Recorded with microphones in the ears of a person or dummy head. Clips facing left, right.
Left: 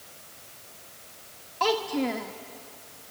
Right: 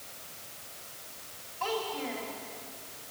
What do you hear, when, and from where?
1.6 s a child speaking: 70° left (ahead or behind), 1.3 m